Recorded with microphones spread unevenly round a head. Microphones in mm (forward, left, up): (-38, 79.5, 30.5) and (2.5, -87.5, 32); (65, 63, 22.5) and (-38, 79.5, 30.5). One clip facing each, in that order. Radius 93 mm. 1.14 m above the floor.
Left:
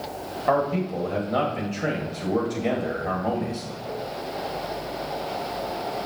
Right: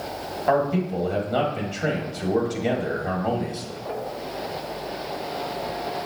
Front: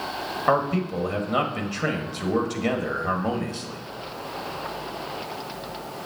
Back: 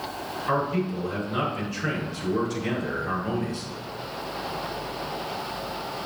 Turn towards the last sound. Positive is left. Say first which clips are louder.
# right 1 dB, front 3 dB
turn(degrees=10)